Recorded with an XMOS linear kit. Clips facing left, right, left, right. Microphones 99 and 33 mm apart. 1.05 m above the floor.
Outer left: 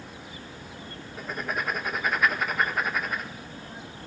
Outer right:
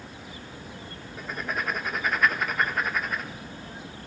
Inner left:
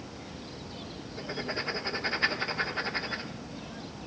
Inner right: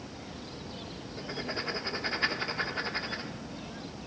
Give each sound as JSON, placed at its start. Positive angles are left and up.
{"t": 1.2, "sound": "writing", "side_deg": 5, "distance_m": 1.3}